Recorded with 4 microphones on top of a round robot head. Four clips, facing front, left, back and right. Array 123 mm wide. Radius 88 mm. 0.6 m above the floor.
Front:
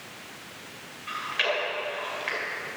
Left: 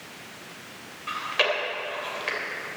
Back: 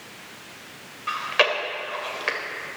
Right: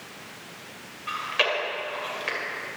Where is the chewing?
170° left, 2.5 m.